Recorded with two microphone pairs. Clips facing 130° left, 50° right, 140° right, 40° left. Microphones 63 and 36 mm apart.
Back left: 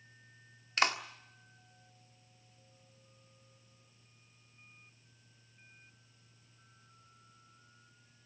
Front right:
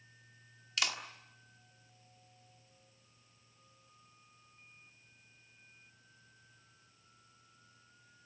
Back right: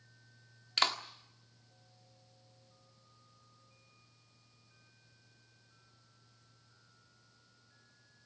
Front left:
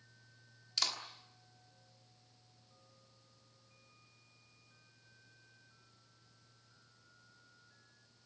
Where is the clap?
Straight behind, 1.7 m.